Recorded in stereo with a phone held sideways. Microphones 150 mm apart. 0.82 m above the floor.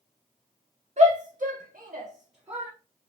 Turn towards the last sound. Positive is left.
turn(degrees=-35)  # may be behind; listen again after turning